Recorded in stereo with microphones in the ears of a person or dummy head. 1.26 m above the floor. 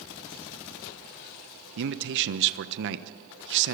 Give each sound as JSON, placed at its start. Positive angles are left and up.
{"t": 1.8, "sound": "a man speaking", "side_deg": -60, "distance_m": 1.2}